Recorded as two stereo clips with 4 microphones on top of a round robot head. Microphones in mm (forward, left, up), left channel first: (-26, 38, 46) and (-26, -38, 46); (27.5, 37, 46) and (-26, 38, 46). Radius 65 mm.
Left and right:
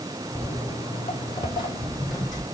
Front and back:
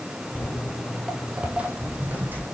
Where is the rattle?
No rattle in this recording.